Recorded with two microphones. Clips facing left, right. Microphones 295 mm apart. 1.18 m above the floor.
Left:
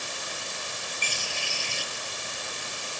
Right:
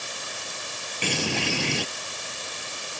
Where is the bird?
75° right (ahead or behind).